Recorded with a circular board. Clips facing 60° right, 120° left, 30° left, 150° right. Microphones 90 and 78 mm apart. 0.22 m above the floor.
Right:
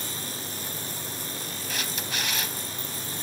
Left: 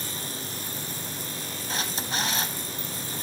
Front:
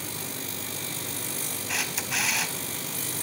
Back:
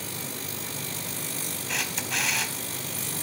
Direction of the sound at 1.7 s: 115° left.